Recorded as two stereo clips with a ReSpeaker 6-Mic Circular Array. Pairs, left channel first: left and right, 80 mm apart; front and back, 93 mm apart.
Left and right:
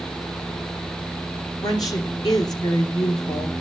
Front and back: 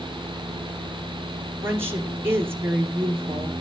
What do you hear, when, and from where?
1.6 s a woman speaking: 120° left, 2.5 m